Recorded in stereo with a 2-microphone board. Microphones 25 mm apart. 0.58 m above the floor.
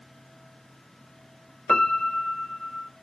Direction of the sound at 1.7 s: 55° left (ahead or behind).